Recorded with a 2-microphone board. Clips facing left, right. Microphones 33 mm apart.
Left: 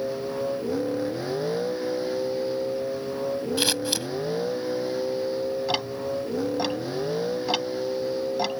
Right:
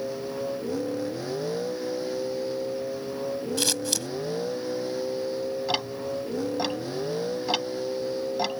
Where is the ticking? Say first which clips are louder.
Left 1 dB; centre (ahead or behind).